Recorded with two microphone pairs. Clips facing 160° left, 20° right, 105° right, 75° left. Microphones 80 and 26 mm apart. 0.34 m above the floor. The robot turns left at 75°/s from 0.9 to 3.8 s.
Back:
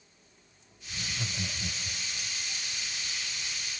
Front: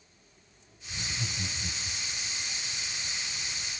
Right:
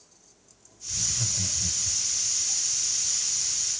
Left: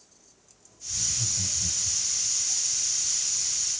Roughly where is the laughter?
Behind right.